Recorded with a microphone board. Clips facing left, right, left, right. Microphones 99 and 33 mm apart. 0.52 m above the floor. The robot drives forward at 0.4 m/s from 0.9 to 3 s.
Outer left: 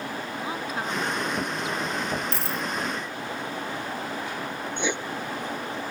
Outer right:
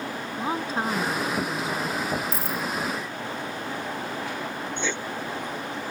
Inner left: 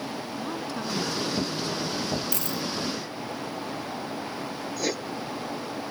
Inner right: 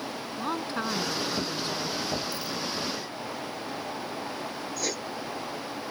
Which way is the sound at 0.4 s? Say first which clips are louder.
Outer right 5 dB, inner right 4 dB; 30° right (ahead or behind).